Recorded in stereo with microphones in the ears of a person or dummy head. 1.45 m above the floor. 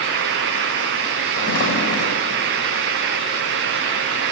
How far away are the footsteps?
About 3 m.